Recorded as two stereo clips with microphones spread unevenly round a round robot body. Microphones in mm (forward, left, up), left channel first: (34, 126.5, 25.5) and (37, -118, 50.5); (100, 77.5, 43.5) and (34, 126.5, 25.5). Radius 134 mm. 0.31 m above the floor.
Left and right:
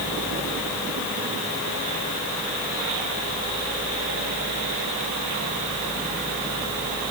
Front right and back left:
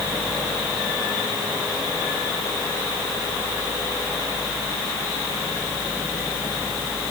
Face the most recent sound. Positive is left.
No sound to turn to.